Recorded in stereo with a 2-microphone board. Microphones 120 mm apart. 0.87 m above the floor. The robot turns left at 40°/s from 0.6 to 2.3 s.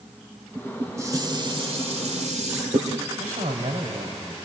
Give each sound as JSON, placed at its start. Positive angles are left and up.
{"t": 0.6, "sound": "dishes clattering", "azimuth_deg": -10, "distance_m": 2.0}
{"t": 3.2, "sound": "a man speaking", "side_deg": -80, "distance_m": 4.5}